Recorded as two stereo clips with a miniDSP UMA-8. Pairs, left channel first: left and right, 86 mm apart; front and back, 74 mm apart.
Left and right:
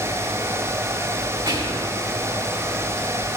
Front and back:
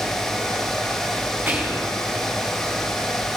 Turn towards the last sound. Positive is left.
turn(degrees=-110)